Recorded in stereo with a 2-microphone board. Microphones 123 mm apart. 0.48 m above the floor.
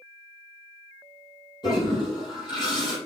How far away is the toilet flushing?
About 3.5 m.